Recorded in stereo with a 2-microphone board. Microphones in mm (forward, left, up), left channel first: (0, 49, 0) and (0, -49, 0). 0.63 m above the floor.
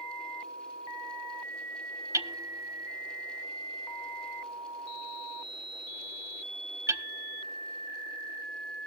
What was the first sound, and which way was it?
Hammering, 35° right (ahead or behind).